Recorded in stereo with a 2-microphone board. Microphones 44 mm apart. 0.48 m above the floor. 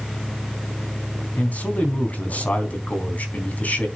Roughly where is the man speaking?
Left.